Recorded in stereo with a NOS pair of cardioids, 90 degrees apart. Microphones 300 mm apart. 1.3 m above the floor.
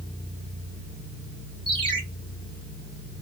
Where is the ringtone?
15° right, 2 m.